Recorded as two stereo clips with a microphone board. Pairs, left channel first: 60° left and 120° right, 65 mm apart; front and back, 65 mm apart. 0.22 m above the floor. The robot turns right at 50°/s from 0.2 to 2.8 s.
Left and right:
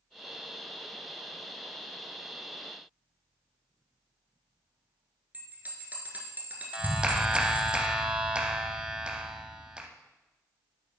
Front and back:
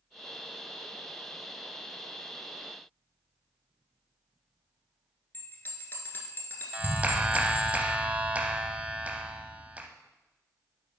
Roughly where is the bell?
Ahead right.